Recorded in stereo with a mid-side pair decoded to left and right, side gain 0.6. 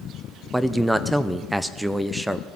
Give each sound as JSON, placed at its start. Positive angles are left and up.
{"t": 0.5, "sound": "a man speaking", "azimuth_deg": 0, "distance_m": 0.9}